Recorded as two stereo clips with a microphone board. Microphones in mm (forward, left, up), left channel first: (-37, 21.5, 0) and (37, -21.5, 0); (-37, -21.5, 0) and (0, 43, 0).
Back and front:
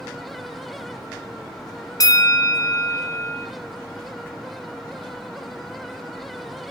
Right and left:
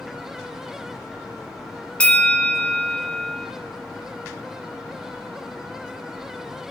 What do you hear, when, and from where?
2.0 s a bell: 170° left, 0.6 m